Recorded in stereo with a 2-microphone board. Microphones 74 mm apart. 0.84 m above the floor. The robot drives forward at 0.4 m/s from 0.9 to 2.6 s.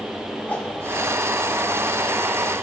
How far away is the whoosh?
About 2.5 m.